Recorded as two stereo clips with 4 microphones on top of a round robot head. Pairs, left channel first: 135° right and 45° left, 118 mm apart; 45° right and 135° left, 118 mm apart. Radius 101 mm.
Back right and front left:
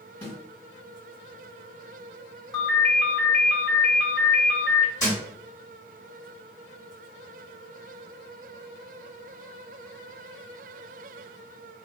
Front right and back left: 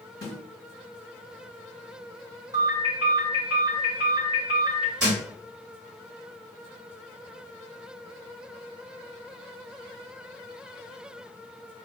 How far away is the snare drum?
About 2.0 m.